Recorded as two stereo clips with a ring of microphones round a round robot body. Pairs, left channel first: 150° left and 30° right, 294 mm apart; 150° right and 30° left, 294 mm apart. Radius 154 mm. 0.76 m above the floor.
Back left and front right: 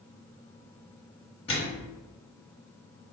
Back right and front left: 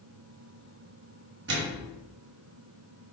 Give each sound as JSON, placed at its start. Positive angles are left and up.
{"t": 1.5, "sound": "a microwave", "azimuth_deg": 80, "distance_m": 1.3}